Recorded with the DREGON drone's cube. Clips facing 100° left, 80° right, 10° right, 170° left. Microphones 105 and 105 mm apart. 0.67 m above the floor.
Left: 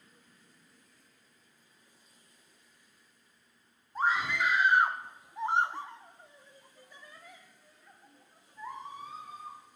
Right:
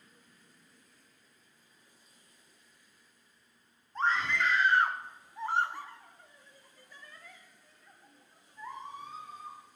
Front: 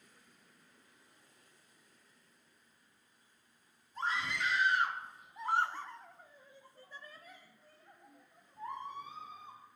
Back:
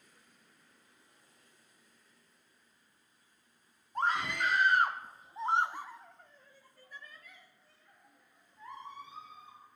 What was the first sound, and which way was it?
A scream, straight behind.